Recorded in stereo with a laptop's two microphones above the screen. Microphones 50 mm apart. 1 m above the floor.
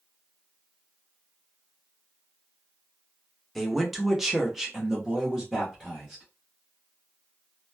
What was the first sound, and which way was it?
A man speaking, centre (ahead or behind).